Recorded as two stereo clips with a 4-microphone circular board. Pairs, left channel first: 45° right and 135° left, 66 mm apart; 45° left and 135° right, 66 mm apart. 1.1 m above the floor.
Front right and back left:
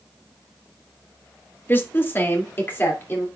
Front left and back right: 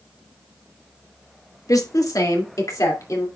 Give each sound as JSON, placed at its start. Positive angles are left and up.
{"t": 1.7, "sound": "a woman speaking", "azimuth_deg": 15, "distance_m": 1.1}